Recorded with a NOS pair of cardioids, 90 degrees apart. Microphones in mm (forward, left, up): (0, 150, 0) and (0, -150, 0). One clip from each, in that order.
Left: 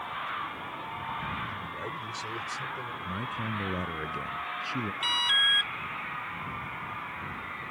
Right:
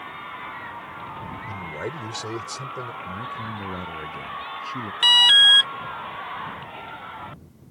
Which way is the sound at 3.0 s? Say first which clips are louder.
Right 2 dB; 10° left.